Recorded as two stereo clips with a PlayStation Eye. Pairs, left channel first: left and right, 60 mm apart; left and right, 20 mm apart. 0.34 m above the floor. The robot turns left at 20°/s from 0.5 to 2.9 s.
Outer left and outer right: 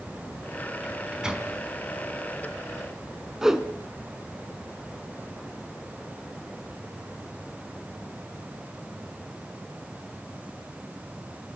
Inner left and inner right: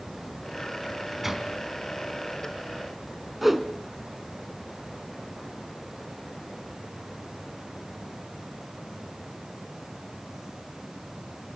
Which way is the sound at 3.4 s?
10° right (ahead or behind).